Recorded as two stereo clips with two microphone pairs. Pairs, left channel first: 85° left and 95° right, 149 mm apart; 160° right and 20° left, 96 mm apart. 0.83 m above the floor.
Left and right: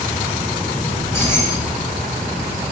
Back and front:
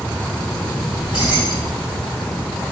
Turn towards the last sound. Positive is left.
turn(degrees=160)